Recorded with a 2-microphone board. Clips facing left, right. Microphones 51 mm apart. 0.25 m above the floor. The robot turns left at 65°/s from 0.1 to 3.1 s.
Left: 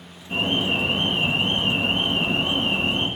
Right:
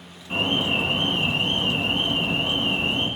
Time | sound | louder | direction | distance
0.3 | an alarm | even | 135° right | 2 m